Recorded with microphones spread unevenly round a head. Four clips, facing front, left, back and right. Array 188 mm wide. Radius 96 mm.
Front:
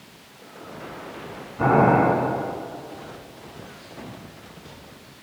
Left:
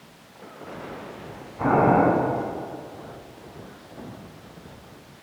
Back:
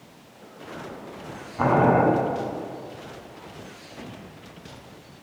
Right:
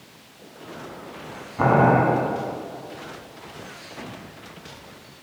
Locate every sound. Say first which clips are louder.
1.6 s boiling: right 1 dB, front 2 dB; 115° right, 4 m